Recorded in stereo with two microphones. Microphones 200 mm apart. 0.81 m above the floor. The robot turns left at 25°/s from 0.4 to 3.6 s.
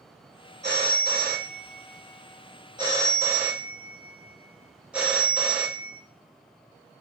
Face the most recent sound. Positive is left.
turn(degrees=-175)